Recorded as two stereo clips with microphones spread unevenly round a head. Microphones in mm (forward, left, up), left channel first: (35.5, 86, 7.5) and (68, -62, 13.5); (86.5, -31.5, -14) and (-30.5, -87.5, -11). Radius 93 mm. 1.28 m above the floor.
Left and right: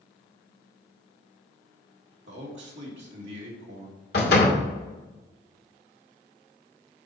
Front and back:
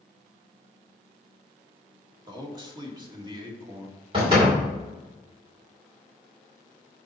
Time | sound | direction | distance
2.3 | a man speaking | 100° right | 2 m
4.1 | a door slam | 145° left | 2 m